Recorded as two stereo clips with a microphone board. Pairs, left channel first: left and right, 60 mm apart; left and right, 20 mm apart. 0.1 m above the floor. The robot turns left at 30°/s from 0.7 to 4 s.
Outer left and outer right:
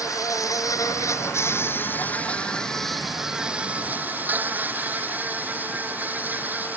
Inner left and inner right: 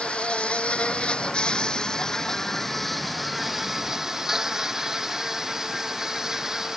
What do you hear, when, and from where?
0.0 s an insect: 70° left; by 6.8 s 30° right